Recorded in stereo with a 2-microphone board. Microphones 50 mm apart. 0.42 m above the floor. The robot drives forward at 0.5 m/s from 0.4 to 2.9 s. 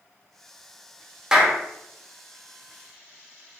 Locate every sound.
1.3 s a clap: 15° right (ahead or behind), 1.0 m